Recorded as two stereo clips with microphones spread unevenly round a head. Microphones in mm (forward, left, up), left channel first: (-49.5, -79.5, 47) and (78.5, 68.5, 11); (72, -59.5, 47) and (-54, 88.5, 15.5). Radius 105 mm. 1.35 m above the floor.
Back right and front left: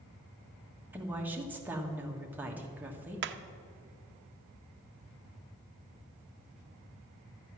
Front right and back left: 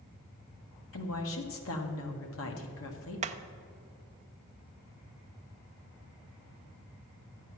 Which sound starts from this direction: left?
Hammering, at 3.2 s.